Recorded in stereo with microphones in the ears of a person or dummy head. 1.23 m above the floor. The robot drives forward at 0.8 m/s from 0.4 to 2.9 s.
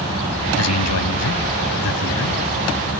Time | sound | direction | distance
0.6 | a man speaking | 80° left | ?